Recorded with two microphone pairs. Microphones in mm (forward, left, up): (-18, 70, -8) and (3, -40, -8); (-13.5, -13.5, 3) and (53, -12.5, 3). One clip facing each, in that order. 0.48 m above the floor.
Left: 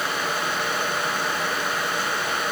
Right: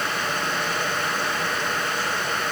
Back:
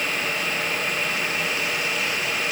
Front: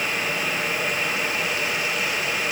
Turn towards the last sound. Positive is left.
No sound to turn to.